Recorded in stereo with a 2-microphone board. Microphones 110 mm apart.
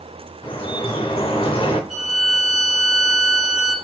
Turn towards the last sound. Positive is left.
turn(degrees=0)  # may be behind; listen again after turning